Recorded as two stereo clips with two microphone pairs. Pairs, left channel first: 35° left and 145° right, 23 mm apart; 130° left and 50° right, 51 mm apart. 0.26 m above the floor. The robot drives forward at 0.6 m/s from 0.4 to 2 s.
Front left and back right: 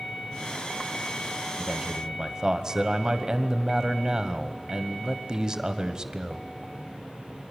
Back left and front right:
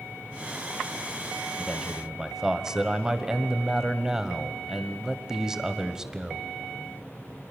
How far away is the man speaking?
About 1.0 m.